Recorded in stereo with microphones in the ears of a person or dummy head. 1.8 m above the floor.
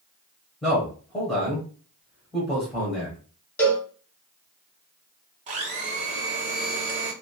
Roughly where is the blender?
Right.